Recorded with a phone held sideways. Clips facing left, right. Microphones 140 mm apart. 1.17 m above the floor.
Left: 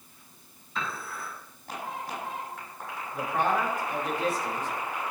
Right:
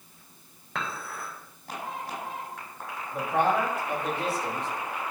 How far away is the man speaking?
About 6 m.